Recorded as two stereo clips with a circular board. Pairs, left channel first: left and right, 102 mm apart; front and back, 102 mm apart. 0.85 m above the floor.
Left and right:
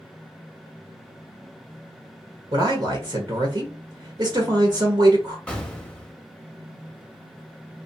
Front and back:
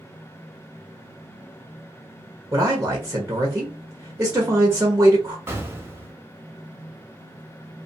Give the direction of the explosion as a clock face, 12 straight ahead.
7 o'clock.